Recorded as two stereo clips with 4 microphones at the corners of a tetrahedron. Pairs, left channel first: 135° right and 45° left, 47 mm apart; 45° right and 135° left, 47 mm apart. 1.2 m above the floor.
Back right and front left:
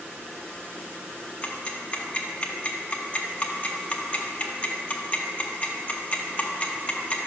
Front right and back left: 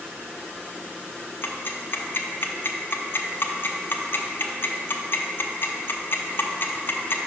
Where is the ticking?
80° right, 0.6 m.